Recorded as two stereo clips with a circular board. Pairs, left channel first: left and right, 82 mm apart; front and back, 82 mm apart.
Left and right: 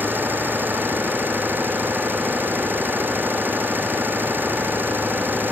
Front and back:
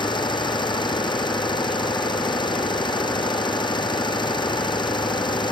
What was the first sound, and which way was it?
An engine running, 25° right.